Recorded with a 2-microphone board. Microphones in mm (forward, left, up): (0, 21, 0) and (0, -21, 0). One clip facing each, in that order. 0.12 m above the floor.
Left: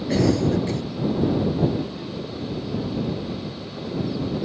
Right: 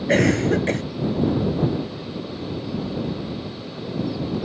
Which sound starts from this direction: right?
A cough, at 0.1 s.